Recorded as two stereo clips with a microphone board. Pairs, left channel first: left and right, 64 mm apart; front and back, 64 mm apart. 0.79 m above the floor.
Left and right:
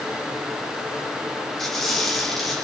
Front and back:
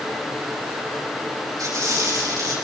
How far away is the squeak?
About 6.5 m.